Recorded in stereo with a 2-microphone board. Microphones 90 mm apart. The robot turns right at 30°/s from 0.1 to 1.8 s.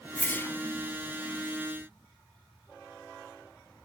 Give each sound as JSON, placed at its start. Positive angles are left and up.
{"t": 0.2, "sound": "a whoosh", "side_deg": 15, "distance_m": 0.9}